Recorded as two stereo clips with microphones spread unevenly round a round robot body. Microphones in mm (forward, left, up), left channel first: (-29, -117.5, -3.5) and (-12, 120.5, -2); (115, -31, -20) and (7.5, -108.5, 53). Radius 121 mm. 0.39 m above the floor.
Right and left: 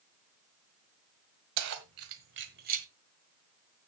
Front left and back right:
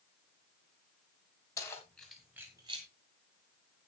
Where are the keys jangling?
90° left, 1.8 m; by 2.9 s 145° left, 1.5 m.